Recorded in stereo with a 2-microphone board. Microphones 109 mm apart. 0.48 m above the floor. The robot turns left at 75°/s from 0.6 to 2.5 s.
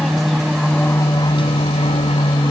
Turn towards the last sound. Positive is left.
turn(degrees=40)  # may be behind; listen again after turning